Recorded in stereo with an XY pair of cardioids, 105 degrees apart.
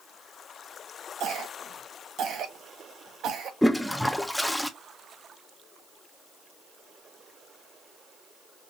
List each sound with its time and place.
1.2 s a cough: 70° right, 1.4 m
3.6 s a toilet flushing: 5° left, 0.6 m